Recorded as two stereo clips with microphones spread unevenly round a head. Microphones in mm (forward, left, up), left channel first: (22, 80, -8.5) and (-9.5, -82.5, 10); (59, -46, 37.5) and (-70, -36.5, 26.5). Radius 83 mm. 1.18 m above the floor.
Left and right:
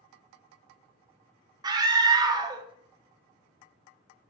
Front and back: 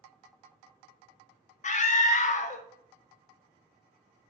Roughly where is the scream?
Ahead right.